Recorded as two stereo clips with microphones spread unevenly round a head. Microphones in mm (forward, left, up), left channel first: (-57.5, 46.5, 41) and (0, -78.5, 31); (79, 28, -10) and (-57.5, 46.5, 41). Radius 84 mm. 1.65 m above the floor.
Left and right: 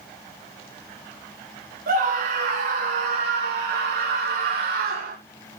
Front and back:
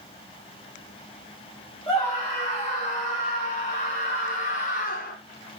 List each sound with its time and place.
1.9 s a scream: 80° right, 4 m; by 5.2 s 40° right, 1.9 m